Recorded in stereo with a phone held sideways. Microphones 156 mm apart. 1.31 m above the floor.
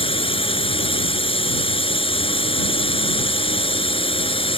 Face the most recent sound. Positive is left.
turn(degrees=35)  # may be behind; listen again after turning